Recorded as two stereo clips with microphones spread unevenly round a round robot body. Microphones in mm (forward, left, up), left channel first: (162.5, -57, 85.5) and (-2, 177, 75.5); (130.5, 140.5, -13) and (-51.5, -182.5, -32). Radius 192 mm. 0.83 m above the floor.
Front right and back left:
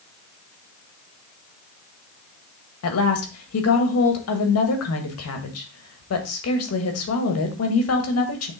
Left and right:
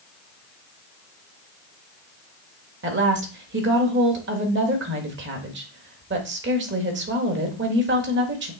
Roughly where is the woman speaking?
Right.